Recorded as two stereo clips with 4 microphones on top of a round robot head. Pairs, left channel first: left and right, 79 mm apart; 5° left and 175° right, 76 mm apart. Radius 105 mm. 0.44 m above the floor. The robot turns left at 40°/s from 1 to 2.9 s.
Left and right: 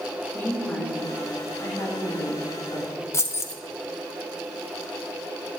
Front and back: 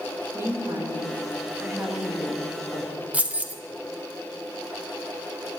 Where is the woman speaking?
145° left, 1.6 m; by 3.0 s 70° left, 1.6 m.